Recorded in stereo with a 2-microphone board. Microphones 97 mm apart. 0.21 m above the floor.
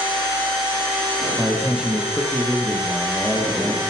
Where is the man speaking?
10° right (ahead or behind), 5 m.